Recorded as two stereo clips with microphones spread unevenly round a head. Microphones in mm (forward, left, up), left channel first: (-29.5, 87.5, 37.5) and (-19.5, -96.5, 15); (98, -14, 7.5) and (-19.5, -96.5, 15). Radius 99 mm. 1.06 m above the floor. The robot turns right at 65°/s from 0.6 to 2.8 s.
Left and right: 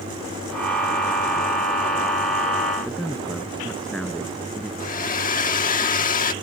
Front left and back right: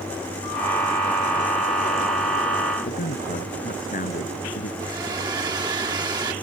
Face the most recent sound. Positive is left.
turn(degrees=140)